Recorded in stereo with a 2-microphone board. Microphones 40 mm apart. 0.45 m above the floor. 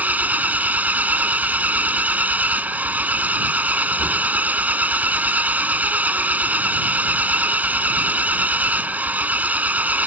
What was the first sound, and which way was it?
An engine running, 45° right (ahead or behind).